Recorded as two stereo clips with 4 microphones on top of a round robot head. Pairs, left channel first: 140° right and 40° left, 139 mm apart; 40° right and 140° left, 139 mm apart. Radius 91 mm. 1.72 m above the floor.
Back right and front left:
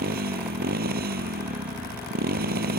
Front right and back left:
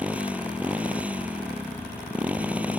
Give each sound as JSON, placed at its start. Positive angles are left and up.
{"t": 0.0, "sound": "a motorcycle", "azimuth_deg": 60}